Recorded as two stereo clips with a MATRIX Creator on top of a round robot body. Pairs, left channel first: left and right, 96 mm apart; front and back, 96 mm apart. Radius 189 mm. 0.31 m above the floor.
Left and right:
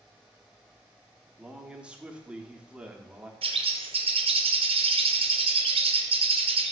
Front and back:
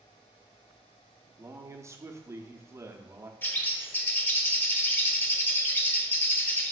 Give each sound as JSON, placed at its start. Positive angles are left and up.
{"t": 1.4, "sound": "a man speaking", "azimuth_deg": -160, "distance_m": 1.0}
{"t": 3.4, "sound": "a bird", "azimuth_deg": -70, "distance_m": 0.9}